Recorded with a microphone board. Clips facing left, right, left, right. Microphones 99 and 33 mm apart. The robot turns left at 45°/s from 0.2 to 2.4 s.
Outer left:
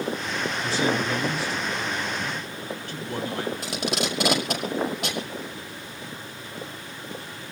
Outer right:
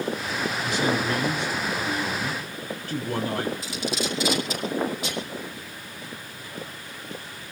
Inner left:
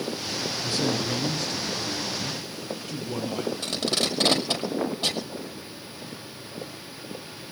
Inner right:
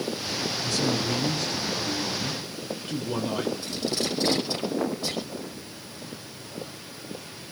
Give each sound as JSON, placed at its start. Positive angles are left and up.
{"t": 0.6, "sound": "a man speaking", "azimuth_deg": 35, "distance_m": 5.0}
{"t": 3.6, "sound": "tape being pulled", "side_deg": 60, "distance_m": 5.0}